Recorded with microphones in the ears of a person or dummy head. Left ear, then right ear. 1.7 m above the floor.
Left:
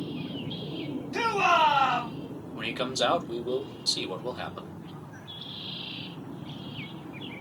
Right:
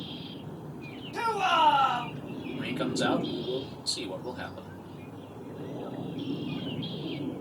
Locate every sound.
1.1 s a shout: 50° left (ahead or behind), 2.0 m
2.5 s a man speaking: 70° left (ahead or behind), 0.9 m